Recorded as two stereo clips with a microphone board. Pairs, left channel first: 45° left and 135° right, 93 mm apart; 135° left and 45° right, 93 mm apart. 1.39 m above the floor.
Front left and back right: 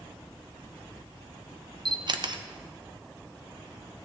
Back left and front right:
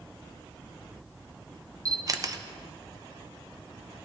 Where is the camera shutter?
95° right, 0.6 m.